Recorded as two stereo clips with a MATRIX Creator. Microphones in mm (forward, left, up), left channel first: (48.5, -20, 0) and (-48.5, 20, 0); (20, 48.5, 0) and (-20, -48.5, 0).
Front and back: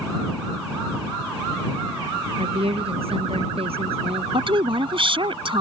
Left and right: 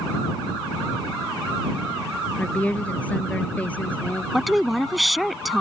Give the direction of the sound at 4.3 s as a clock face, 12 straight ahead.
7 o'clock.